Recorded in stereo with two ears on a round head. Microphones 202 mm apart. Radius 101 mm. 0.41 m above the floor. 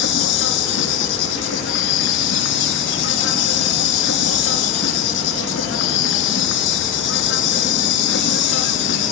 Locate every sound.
0.0 s an insect: 55° left (ahead or behind), 4 m